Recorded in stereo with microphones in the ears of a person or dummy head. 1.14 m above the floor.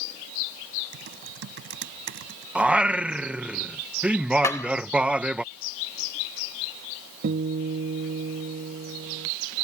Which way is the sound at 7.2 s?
45° right (ahead or behind).